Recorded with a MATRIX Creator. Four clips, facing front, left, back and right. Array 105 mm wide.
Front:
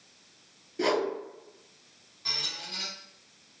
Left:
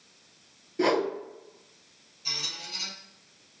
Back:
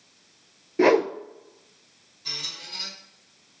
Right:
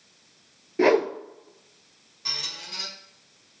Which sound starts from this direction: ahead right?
A squeak, at 2.2 s.